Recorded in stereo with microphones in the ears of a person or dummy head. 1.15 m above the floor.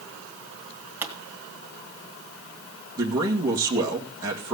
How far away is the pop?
About 2.0 m.